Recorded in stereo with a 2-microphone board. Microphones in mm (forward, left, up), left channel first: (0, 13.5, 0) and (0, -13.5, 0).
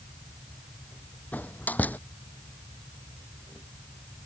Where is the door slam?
90° left.